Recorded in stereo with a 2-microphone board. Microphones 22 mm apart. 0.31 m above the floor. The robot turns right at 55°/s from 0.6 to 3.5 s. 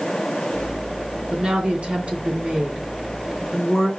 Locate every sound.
1.3 s a woman speaking: 105° right, 2.5 m; by 3.9 s 15° left, 2.5 m